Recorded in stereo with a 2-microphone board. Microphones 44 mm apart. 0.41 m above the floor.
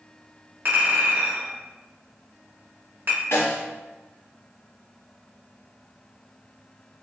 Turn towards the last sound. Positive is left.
turn(degrees=90)